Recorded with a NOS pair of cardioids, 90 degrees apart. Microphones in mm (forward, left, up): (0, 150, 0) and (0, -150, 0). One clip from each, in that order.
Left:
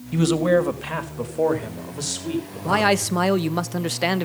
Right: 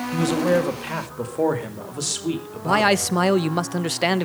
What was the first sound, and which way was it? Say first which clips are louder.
A man speaking: left 2 dB; 25° left.